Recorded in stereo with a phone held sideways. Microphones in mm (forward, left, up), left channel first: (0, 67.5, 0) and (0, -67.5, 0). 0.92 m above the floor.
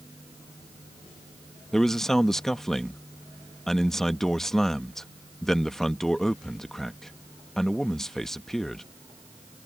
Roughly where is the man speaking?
Centre.